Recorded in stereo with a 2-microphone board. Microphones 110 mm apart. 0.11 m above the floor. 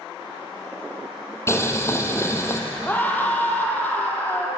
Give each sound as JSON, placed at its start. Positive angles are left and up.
{"t": 1.5, "sound": "boiling", "side_deg": 25, "distance_m": 2.5}
{"t": 2.9, "sound": "a scream", "side_deg": 15, "distance_m": 4.5}